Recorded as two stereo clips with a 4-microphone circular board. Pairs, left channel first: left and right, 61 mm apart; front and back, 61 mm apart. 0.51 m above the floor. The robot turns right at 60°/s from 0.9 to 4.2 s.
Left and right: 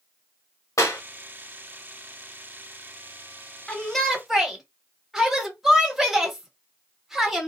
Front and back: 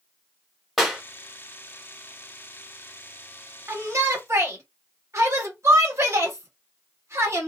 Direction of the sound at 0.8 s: 90° left.